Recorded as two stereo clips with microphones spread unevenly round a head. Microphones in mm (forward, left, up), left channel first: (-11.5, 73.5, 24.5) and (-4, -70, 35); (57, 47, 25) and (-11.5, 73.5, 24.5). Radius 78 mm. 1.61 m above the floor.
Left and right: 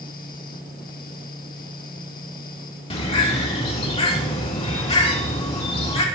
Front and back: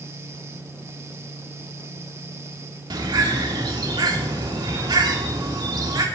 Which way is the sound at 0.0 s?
110° left.